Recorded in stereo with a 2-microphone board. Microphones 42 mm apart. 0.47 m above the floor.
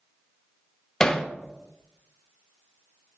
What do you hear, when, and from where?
1.0 s hammering: 20° left (ahead or behind), 0.7 m